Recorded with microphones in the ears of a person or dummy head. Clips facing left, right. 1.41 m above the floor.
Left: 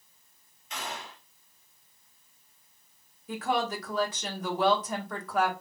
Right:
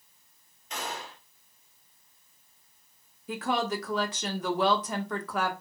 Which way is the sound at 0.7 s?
40° right (ahead or behind).